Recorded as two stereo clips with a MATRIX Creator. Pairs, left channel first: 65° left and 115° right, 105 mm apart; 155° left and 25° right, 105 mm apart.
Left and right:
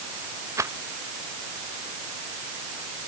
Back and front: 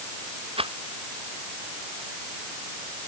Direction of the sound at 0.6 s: 50° right.